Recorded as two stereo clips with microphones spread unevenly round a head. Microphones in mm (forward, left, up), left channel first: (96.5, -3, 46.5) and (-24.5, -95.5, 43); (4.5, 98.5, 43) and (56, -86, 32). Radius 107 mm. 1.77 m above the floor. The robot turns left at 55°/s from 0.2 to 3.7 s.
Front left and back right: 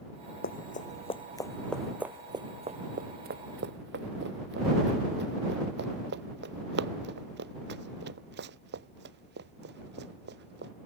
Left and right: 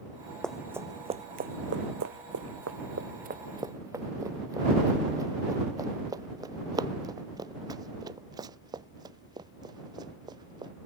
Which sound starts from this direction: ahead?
Running footsteps, at 0.4 s.